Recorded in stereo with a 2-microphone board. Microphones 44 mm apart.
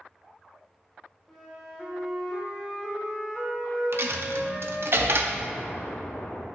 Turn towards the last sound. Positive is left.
turn(degrees=55)  # may be behind; listen again after turning